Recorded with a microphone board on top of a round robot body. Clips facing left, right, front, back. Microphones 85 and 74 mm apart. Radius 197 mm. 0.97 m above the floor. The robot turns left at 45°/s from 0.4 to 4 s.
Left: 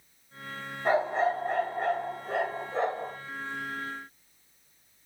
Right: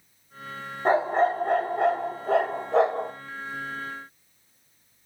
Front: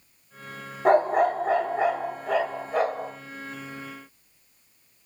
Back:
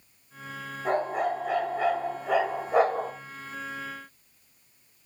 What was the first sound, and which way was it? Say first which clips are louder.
A dog barking: right 4 dB, front 7 dB; 25° right.